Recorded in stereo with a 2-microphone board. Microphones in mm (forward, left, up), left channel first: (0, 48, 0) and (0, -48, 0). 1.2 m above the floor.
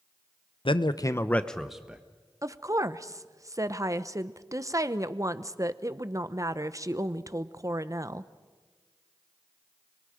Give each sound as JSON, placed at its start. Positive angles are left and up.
{"t": 0.7, "sound": "a man speaking", "side_deg": 65, "distance_m": 0.7}
{"t": 2.4, "sound": "a woman speaking", "side_deg": -35, "distance_m": 0.7}